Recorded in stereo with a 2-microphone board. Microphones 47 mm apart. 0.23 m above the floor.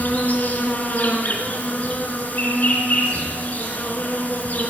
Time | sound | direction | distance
0.0 | an insect | 35° left (ahead or behind) | 2.5 m